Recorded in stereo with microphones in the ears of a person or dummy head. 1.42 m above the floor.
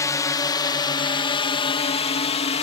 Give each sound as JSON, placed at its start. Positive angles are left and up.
{"t": 0.0, "sound": "a drone", "side_deg": 15}